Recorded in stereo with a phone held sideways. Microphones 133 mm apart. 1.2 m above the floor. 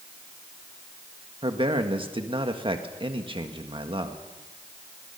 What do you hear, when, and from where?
1.4 s a man speaking: 40° right (ahead or behind), 1.7 m